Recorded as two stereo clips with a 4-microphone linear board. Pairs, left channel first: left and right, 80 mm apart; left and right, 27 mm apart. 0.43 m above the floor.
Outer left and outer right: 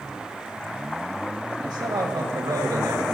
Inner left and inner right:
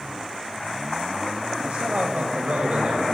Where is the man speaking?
65° right (ahead or behind), 2.5 m; by 3.0 s 40° right (ahead or behind), 1.7 m.